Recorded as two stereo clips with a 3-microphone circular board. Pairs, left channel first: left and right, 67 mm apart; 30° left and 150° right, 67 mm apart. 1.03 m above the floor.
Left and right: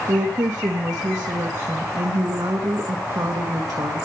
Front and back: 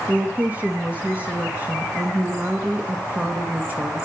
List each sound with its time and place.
0.1 s a woman speaking: 85° right, 1.7 m